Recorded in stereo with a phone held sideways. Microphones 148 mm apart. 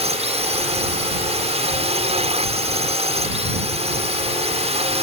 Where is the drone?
45° right (ahead or behind).